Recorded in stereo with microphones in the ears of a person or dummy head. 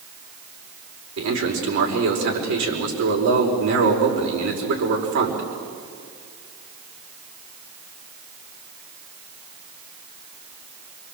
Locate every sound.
1.2 s a man speaking: 70° right (ahead or behind), 5.5 m